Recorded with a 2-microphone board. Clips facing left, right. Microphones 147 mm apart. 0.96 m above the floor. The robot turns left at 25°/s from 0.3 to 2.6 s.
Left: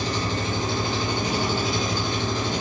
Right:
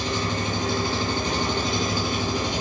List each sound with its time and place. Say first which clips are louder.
0.0 s an engine running: even; 35° left, 1.2 m; by 2.6 s 20° right, 1.2 m